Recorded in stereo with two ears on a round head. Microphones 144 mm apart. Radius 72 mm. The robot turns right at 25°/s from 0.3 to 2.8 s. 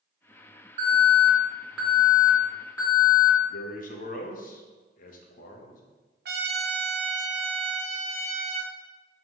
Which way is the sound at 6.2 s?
65° right (ahead or behind).